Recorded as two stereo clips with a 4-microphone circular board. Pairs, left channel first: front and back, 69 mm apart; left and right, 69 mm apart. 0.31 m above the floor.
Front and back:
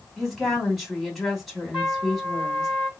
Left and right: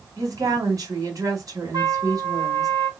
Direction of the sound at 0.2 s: 90° right.